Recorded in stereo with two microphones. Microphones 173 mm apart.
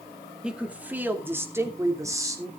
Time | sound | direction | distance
0.4 | a woman speaking | 5° right (ahead or behind) | 1.9 m